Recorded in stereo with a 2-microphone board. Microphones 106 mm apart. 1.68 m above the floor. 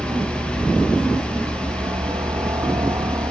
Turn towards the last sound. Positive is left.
turn(degrees=-40)  # may be behind; listen again after turning